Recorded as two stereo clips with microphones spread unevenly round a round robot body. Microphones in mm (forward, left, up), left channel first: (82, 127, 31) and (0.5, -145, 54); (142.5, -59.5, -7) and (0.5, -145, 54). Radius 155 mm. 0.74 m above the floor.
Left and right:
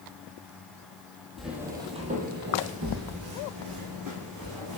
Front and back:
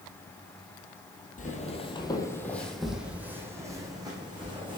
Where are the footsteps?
20° right, 1.4 m; by 4.8 s 95° right, 3 m.